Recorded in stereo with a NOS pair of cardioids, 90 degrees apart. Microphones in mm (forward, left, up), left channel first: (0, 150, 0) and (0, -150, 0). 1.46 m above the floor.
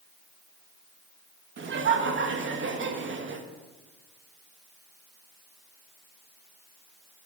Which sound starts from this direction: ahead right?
Laughter, at 1.6 s.